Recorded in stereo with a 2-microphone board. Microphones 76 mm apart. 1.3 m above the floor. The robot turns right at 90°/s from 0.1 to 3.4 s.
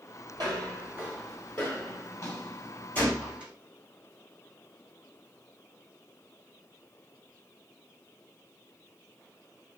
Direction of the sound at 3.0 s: 25° left (ahead or behind).